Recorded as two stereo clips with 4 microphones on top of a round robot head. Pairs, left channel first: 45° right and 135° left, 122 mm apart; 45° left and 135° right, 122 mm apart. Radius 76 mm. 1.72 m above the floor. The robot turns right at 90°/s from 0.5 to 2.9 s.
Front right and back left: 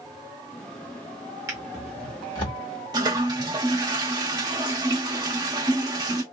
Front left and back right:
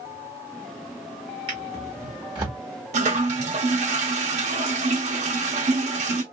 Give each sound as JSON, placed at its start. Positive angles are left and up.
{"t": 1.5, "sound": "a drawer", "azimuth_deg": -170, "distance_m": 1.4}
{"t": 2.9, "sound": "a toilet flushing", "azimuth_deg": -165, "distance_m": 1.1}